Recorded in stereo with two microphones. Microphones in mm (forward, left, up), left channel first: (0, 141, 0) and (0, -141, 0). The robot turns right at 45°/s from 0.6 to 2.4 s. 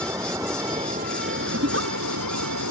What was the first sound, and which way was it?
Running water, 170° right.